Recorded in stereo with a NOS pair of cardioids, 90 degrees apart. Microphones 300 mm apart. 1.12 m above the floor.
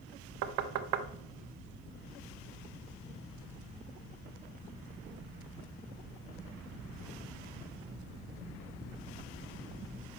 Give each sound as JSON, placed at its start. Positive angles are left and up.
{"t": 0.4, "sound": "knocking", "azimuth_deg": -60, "distance_m": 0.7}